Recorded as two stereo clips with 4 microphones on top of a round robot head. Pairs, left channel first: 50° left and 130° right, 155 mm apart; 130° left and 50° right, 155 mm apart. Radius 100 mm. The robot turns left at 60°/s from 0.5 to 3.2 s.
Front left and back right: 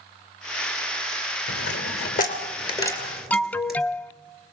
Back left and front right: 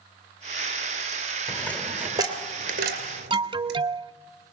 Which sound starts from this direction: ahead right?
An alarm, at 3.3 s.